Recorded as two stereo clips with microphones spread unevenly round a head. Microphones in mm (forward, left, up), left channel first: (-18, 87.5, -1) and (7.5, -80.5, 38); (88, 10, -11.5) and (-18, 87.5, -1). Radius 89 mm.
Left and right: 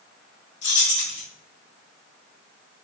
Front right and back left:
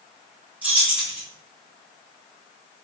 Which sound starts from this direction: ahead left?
Keys jangling, at 0.6 s.